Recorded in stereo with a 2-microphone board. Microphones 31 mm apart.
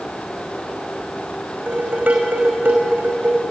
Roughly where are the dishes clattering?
Right.